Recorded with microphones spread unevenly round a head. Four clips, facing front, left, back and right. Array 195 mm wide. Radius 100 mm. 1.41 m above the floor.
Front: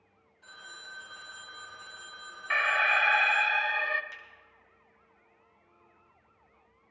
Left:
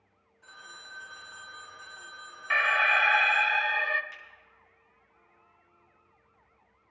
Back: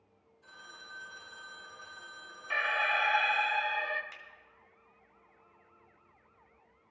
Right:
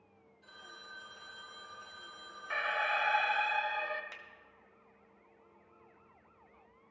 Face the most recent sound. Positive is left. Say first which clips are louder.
# left 2 dB, front 3 dB
turn(degrees=-90)